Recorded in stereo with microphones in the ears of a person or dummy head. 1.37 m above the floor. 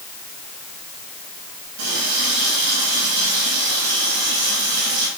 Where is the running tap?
75° right (ahead or behind), 6.5 m.